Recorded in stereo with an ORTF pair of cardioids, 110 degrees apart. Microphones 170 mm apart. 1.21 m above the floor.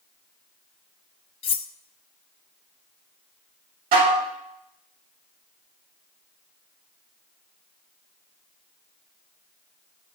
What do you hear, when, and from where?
1.4 s cutlery clinking: 35° left, 0.8 m
3.9 s dishes clattering: 60° right, 2.5 m